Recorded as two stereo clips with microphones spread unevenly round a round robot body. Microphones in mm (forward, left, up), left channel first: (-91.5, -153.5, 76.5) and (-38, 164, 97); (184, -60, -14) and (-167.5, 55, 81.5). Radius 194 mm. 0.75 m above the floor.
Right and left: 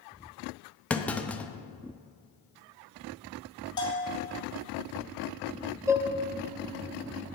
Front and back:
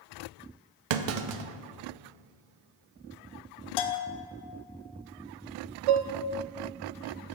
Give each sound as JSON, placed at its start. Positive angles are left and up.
{"t": 0.9, "sound": "a clunk", "azimuth_deg": 175, "distance_m": 0.6}
{"t": 3.8, "sound": "a bell", "azimuth_deg": -20, "distance_m": 0.8}
{"t": 5.9, "sound": "dishes clattering", "azimuth_deg": 165, "distance_m": 0.5}